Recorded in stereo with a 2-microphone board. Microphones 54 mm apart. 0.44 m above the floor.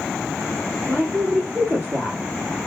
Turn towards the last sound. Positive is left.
turn(degrees=-40)  # may be behind; listen again after turning